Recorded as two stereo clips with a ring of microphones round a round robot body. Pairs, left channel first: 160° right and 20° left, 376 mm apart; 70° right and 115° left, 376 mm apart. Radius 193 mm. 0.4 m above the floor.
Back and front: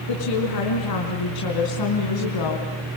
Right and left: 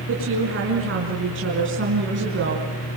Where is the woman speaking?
170° left, 5 m; by 2.7 s 175° left, 3.5 m.